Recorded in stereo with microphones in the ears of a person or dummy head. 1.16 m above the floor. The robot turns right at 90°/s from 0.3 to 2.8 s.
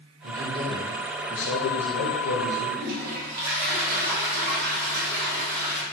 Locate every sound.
0.2 s a man speaking: 50° right, 0.7 m; by 2.7 s 165° left, 0.7 m
2.8 s a toilet flushing: 55° right (ahead or behind), 1.0 m; by 5.8 s 50° right (ahead or behind), 1.0 m